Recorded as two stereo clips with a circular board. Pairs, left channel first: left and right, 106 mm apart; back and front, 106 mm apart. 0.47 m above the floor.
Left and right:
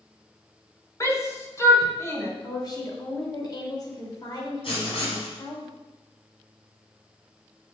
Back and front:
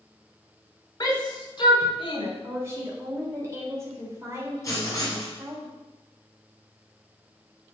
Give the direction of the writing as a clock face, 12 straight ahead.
8 o'clock.